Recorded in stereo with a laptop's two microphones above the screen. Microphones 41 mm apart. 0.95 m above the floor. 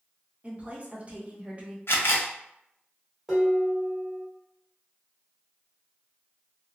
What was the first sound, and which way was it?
A woman speaking, 35° right (ahead or behind).